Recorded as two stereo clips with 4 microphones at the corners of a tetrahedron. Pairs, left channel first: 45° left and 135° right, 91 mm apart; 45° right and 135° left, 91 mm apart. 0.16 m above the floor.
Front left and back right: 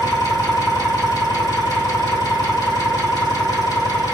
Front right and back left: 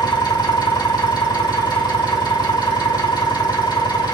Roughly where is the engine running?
Ahead.